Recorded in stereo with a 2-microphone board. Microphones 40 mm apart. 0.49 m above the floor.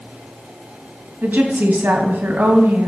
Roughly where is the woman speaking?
Right.